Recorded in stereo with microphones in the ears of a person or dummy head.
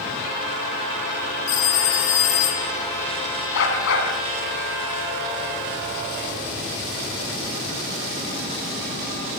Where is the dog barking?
80° left, 7 m.